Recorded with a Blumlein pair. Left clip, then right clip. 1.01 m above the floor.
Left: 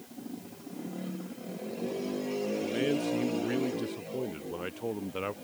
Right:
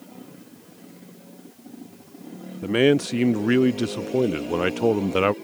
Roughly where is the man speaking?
Ahead right.